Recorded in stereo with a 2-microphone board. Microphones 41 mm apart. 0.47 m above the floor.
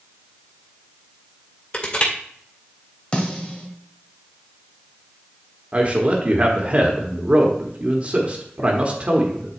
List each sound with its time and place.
1.7 s crushing: 30° left (ahead or behind), 2 m
3.1 s a snare drum: 25° left (ahead or behind), 1.6 m
5.7 s a man speaking: 35° right (ahead or behind), 1.1 m